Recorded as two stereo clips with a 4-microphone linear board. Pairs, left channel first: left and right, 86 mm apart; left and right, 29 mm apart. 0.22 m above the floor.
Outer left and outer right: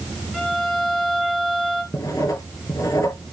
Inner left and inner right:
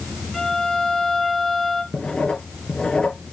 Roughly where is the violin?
Centre.